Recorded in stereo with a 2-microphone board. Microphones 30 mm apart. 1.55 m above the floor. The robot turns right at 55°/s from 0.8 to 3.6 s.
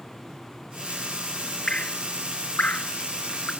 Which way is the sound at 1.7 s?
35° left (ahead or behind).